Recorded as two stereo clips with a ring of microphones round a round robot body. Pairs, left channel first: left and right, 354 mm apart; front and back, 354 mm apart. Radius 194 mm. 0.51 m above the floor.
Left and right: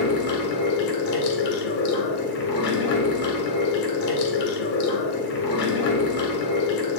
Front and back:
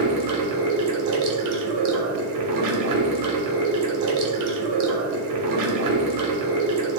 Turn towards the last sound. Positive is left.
turn(degrees=150)